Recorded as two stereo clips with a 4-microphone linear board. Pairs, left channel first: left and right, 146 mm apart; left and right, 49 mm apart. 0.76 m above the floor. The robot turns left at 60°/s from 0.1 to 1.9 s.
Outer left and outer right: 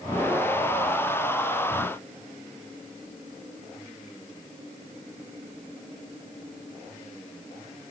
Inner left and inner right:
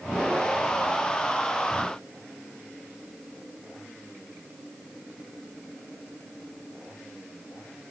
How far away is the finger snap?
No finger snap in this recording.